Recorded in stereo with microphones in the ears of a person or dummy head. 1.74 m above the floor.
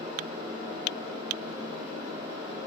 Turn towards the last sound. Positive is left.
turn(degrees=-20)  # may be behind; listen again after turning